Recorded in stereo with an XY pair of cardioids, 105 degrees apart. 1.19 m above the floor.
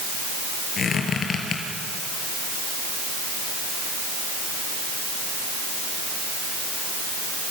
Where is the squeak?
50° left, 5 m.